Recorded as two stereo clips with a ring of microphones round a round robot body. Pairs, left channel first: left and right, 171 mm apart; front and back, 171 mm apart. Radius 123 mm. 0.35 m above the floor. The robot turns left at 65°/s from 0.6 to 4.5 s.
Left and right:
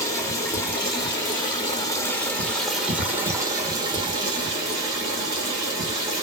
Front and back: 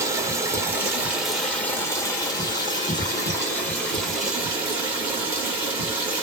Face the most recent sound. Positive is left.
turn(degrees=-115)